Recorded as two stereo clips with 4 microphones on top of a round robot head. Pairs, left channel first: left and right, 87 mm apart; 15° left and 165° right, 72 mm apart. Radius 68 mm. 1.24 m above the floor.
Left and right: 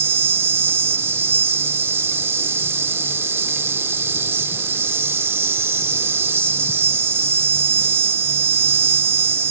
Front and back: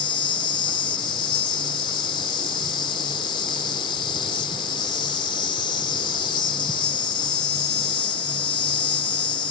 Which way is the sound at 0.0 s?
30° right.